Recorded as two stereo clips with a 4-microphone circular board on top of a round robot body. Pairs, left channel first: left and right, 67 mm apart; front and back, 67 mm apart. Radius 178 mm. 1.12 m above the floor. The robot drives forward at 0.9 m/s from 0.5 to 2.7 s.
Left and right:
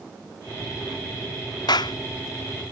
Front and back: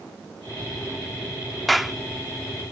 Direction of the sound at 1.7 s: 90° left.